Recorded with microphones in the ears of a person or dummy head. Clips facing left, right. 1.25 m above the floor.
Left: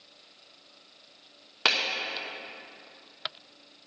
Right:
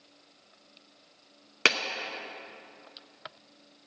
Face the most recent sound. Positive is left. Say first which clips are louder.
# right 2 dB
turn(degrees=-40)  # may be behind; listen again after turning